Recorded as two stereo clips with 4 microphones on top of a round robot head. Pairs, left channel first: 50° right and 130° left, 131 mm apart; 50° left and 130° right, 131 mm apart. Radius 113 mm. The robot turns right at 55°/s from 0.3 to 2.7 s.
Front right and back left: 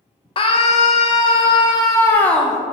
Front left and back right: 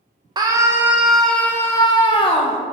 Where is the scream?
80° right, 0.7 m; by 2.6 s 40° left, 0.7 m.